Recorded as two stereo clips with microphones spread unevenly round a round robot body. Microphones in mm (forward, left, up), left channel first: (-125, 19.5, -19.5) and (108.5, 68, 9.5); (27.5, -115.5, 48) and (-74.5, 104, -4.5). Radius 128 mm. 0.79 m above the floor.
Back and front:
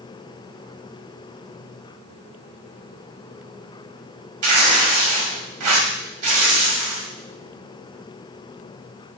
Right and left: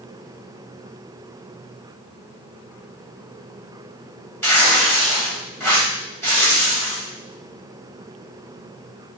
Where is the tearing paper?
20° left, 1.4 m.